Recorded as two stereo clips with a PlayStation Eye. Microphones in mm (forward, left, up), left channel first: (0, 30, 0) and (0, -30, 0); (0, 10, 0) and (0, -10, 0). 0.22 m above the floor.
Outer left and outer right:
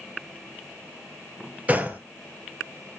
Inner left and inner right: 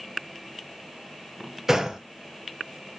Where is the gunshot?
25° right (ahead or behind), 0.7 m.